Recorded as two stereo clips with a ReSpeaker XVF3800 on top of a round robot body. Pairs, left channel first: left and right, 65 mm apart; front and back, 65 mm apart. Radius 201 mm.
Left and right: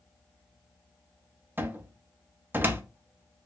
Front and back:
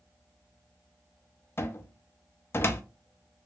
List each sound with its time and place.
1.6 s a cupboard door: 40° right, 0.8 m